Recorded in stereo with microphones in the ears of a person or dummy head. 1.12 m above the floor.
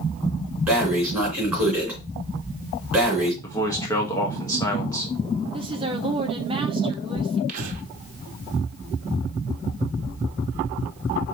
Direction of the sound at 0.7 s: 10° right (ahead or behind).